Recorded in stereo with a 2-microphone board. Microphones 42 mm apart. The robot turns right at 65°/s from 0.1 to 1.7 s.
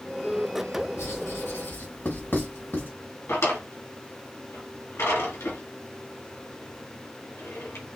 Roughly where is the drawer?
Left.